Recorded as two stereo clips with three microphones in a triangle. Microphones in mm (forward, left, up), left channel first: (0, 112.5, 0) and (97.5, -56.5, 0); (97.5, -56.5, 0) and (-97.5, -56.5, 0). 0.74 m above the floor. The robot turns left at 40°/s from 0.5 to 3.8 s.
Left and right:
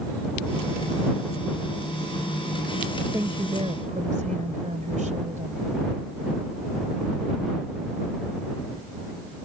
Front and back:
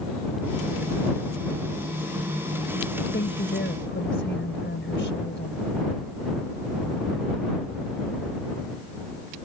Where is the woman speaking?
15° left; by 5.7 s 10° right.